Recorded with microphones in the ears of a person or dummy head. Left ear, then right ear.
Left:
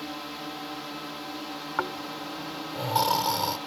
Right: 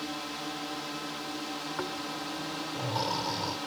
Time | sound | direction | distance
0.0 | a drone | 5° left (ahead or behind) | ?
1.8 | snoring | 55° left (ahead or behind) | ?